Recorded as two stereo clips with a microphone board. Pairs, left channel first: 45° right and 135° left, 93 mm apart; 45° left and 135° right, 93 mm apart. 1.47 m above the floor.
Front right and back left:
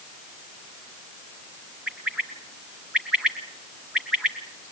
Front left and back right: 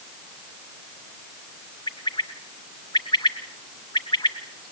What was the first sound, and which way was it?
A bird, 55° left.